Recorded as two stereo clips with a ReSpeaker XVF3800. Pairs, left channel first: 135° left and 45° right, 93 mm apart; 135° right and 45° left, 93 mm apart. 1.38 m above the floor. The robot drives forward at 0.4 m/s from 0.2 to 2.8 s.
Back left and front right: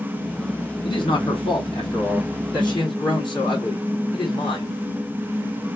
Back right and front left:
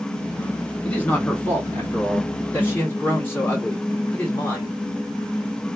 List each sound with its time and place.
0.8 s a man speaking: 145° left, 2 m; by 4.8 s 155° left, 3 m